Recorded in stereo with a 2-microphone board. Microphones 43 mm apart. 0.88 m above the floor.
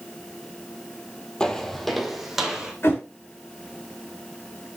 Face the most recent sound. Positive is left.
turn(degrees=65)  # may be behind; listen again after turning